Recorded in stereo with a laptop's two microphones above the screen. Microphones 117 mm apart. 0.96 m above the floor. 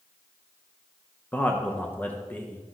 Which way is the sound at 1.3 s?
15° left (ahead or behind).